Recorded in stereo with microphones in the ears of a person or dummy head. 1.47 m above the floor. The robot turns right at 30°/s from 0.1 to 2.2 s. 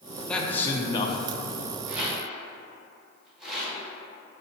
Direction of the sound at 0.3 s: 10° left (ahead or behind).